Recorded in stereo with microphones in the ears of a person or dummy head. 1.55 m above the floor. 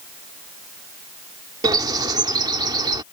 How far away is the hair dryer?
I don't hear a hair dryer.